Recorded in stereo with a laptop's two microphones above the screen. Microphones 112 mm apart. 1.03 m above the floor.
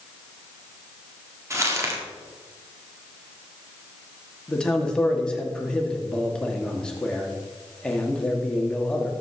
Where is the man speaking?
10° left (ahead or behind), 2.5 m.